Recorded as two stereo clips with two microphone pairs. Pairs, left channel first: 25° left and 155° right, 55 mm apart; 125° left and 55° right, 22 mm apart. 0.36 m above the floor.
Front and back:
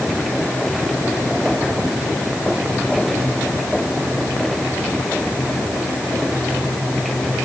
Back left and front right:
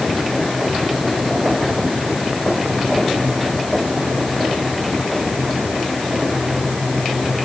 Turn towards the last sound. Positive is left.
No sound to turn to.